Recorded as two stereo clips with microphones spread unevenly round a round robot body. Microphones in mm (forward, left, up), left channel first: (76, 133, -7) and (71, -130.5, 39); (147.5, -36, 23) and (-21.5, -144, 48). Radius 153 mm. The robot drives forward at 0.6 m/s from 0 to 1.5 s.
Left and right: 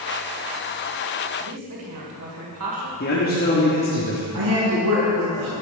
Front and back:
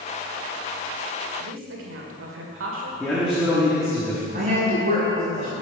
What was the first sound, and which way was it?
A woman speaking, 135° right.